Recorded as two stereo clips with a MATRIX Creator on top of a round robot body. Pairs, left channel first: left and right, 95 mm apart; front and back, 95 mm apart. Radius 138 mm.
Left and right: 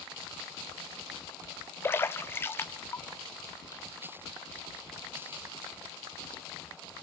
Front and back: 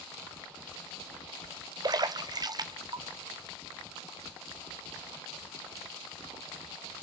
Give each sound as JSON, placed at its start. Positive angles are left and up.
{"t": 1.8, "sound": "a splash", "azimuth_deg": 150, "distance_m": 1.2}